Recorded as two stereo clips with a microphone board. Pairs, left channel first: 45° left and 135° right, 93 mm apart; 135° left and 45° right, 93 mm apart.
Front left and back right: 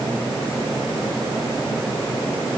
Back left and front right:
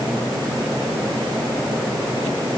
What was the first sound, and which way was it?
Only background noise.